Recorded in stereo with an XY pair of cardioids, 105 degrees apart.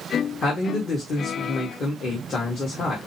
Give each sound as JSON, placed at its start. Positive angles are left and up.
{"t": 0.4, "sound": "a man speaking", "azimuth_deg": 50, "distance_m": 1.8}